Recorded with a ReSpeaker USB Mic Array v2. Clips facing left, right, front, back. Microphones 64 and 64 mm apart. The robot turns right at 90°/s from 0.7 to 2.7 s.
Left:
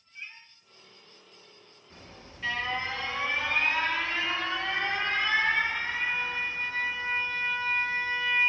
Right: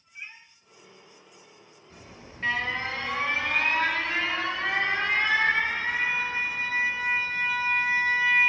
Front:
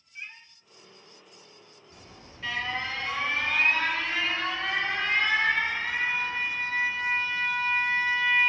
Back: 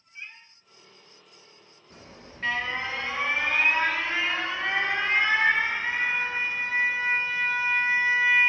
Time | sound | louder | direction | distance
0.1 | a cat meowing | right 2 dB, even | 75° right | 0.9 m
1.9 | an alarm | right 2 dB, back 4 dB | 175° left | 2.5 m